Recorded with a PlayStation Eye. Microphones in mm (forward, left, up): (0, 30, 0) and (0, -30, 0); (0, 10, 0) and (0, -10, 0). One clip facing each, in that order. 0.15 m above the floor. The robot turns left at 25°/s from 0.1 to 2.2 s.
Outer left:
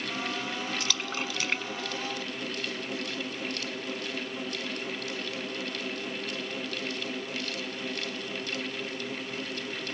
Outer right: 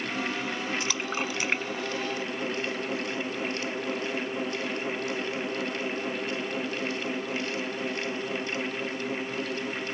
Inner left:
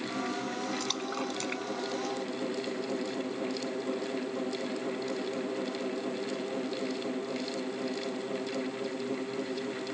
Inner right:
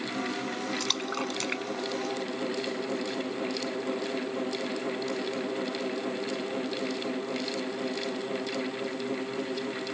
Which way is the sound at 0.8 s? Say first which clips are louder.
Outer right 3 dB, inner right 3 dB; 25° right (ahead or behind).